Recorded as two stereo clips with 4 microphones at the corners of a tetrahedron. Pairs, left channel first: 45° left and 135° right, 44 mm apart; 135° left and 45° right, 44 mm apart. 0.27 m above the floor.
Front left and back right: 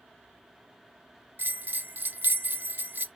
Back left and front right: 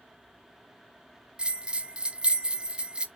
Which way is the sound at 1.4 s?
105° right.